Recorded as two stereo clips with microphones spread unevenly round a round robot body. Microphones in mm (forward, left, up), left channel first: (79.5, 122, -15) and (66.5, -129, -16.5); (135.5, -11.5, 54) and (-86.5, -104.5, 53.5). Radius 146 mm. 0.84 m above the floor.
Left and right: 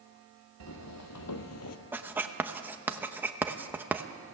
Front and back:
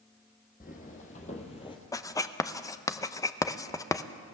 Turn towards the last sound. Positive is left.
turn(degrees=-25)